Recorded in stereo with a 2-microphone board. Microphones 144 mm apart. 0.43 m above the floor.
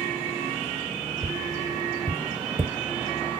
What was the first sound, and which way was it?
Tapping, 25° right (ahead or behind).